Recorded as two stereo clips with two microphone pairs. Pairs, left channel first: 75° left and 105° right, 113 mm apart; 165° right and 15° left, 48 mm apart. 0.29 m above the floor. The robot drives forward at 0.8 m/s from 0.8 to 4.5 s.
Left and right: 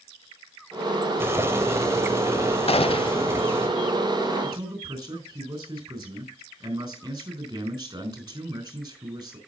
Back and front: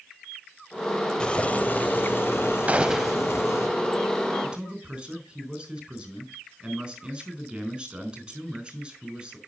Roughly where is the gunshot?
Ahead left.